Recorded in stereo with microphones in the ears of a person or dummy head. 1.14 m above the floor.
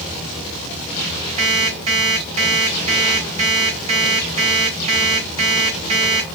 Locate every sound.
1.4 s an alarm clock: 30° right (ahead or behind), 3 m